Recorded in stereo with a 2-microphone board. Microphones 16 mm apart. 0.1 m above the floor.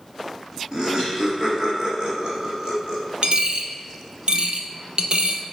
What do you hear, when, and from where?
0.7 s laughter: 45° right (ahead or behind), 2 m; by 3.0 s 40° right (ahead or behind), 3 m
3.2 s a dropped coin: 65° right (ahead or behind), 0.9 m